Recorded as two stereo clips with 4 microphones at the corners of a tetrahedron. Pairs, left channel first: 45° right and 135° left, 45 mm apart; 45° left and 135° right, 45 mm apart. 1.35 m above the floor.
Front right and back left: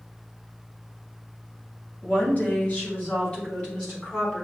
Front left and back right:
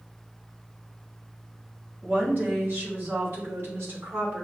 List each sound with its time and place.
2.0 s a woman speaking: 95° right, 2 m; by 4.4 s 120° right, 3 m